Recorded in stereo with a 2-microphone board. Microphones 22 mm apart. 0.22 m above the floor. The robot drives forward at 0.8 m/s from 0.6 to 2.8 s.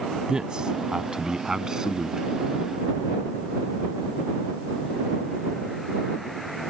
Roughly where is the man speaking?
Right.